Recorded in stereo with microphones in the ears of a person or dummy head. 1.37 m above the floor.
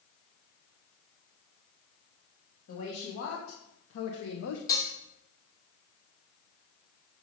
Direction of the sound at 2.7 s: 75° left (ahead or behind).